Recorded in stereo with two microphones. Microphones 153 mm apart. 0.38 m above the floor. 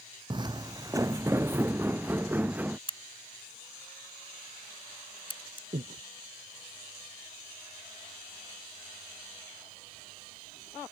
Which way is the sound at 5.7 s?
65° right (ahead or behind).